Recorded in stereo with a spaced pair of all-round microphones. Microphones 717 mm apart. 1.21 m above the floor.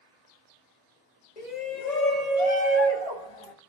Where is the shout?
70° left (ahead or behind), 1.2 m; by 3.5 s 50° left (ahead or behind), 2 m.